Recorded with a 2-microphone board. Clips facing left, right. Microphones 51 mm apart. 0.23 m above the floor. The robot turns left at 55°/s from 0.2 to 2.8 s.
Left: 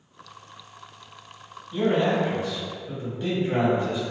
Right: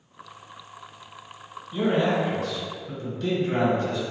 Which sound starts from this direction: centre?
A man speaking, at 1.7 s.